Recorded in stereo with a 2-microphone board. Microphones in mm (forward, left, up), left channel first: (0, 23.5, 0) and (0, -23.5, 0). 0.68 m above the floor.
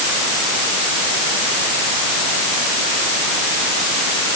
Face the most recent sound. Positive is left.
No sound to turn to.